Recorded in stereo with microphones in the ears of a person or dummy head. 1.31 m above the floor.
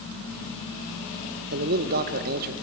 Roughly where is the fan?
Right.